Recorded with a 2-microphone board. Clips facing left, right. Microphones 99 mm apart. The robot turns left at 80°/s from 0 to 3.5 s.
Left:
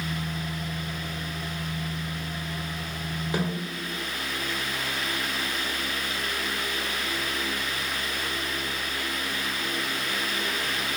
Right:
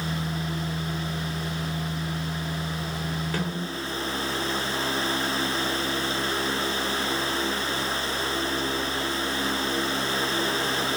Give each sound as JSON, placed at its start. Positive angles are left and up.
{"t": 3.3, "sound": "a snare drum", "side_deg": 15, "distance_m": 3.0}